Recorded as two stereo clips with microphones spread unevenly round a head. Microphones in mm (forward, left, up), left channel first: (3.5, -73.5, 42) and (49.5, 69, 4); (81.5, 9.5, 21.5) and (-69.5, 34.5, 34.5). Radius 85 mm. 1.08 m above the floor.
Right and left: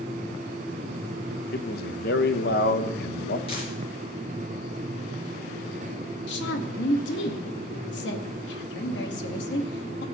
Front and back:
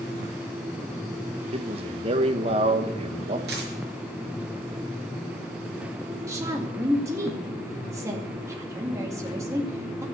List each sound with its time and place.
1.5 s a man speaking: 135° right, 1.2 m
3.5 s a dropped coin: 160° right, 4.5 m
6.3 s a woman speaking: 115° right, 2 m